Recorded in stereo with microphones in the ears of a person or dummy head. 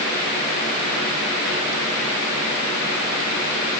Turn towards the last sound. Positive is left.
No sound to turn to.